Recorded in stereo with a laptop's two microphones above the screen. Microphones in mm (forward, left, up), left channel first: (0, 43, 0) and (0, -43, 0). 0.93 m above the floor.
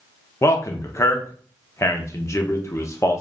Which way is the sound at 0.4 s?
30° left (ahead or behind).